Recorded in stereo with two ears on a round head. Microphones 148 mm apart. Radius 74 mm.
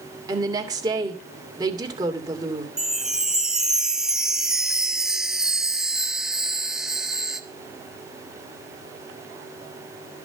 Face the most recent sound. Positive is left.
turn(degrees=-5)  # may be behind; listen again after turning